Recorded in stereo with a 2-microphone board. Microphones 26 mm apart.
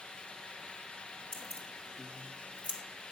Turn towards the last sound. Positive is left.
turn(degrees=60)  # may be behind; listen again after turning